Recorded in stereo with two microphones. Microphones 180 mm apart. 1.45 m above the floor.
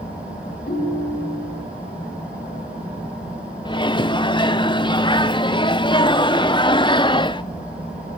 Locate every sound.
0.7 s a ringtone: 50° left (ahead or behind), 6 m
3.6 s a microwave: 25° left (ahead or behind), 0.6 m